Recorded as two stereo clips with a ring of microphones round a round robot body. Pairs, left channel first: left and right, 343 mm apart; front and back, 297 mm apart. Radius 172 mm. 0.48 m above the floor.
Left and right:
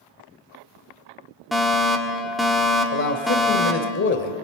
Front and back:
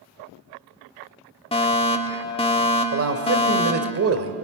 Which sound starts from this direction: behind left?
A man speaking, at 2.9 s.